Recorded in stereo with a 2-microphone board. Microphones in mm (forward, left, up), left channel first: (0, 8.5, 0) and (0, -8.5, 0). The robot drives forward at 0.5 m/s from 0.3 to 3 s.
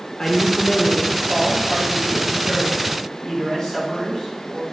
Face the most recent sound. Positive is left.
turn(degrees=20)  # may be behind; listen again after turning